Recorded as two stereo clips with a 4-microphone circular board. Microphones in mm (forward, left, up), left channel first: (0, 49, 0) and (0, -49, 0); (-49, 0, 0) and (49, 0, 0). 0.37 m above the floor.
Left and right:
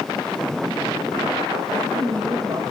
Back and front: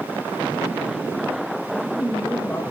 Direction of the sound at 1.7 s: 105° right.